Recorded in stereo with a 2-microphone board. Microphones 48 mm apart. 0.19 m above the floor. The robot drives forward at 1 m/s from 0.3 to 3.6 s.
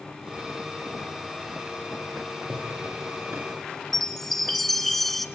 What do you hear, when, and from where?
2.5 s a drawer: 75° right (ahead or behind), 9 m; by 3.6 s 70° right (ahead or behind), 9 m
3.9 s a chime: 5° left (ahead or behind), 1.7 m